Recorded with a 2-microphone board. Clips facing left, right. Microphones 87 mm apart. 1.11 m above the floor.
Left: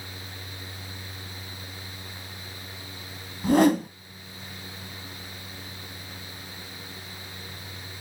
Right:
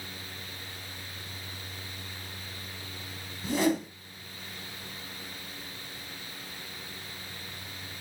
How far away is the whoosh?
About 1.7 m.